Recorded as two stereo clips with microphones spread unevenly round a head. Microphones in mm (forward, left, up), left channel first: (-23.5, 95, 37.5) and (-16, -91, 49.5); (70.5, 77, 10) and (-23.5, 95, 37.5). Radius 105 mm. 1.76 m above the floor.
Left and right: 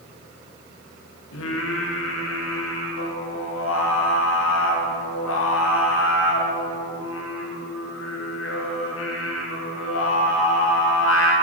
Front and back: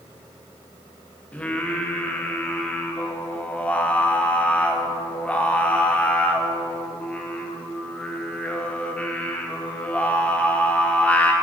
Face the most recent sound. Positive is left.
turn(degrees=70)